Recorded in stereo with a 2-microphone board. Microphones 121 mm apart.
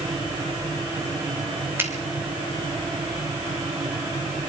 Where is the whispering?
No whispering in this recording.